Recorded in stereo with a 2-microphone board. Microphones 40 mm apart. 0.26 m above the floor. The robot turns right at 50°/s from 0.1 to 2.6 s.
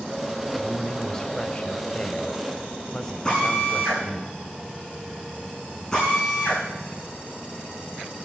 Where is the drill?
15° left (ahead or behind), 7.5 m.